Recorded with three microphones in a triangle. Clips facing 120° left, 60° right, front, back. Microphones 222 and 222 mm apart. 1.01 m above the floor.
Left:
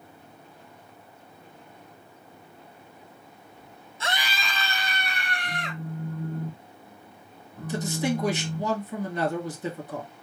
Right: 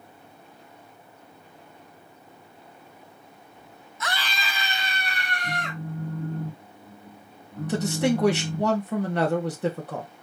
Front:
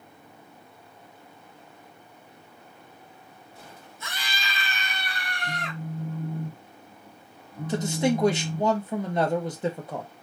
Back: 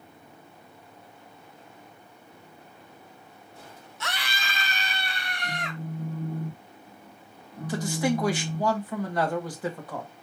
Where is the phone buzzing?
90° right, 2 m.